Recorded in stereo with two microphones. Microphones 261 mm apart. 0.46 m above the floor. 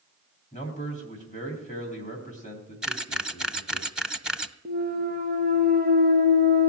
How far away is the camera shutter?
About 0.6 m.